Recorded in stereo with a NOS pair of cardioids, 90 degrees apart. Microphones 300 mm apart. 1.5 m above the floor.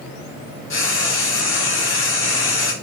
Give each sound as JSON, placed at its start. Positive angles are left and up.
{"t": 0.7, "sound": "frying", "azimuth_deg": 45, "distance_m": 1.7}